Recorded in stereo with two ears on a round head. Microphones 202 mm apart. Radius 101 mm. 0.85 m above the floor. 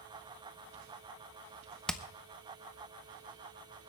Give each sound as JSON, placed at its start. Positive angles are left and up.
{"t": 1.9, "sound": "hammering", "side_deg": 5, "distance_m": 0.6}